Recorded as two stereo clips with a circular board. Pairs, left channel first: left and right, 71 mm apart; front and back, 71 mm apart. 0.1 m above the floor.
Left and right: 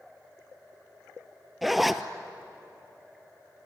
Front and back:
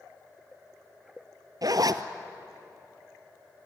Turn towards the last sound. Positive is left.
turn(degrees=180)